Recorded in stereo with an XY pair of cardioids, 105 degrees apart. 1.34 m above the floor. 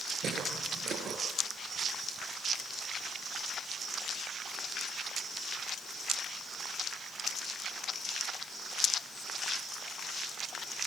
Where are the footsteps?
65° right, 6 m.